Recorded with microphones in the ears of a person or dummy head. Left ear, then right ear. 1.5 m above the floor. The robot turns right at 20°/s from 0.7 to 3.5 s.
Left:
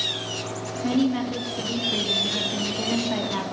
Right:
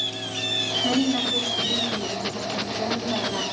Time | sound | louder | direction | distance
0.8 | a woman speaking | right 2 dB | straight ahead | 4 m